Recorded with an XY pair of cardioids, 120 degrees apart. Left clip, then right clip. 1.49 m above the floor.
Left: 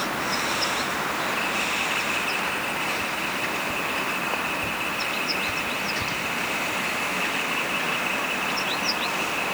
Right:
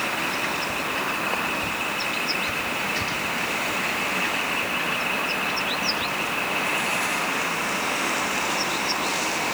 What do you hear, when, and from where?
Only background noise.